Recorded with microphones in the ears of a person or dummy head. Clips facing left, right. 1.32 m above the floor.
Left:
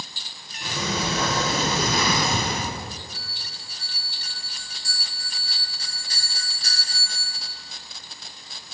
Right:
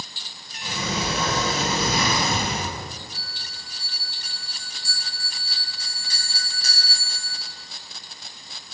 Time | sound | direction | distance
0.6 | a sliding door | 40° left (ahead or behind) | 2 m
3.1 | a bell | 50° left (ahead or behind) | 2.5 m